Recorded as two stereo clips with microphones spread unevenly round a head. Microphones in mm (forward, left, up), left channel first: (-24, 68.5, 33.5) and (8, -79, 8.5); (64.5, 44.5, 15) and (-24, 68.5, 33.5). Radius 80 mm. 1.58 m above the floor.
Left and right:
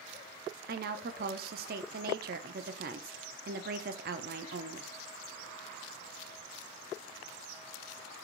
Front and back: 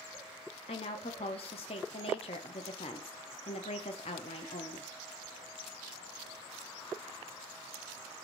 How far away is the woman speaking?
About 0.5 m.